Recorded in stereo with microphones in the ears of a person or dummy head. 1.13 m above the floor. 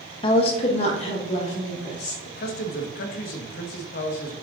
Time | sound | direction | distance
0.2 | a woman speaking | 35° left (ahead or behind) | 0.8 m
2.2 | a man speaking | 55° left (ahead or behind) | 1.1 m